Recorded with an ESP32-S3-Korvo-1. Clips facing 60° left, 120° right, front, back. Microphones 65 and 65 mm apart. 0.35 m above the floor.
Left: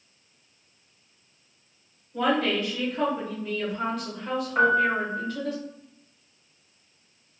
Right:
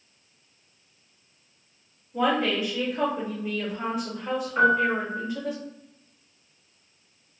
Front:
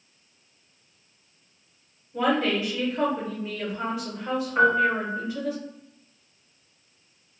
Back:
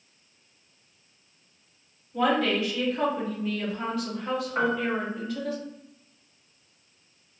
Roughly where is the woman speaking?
Ahead right.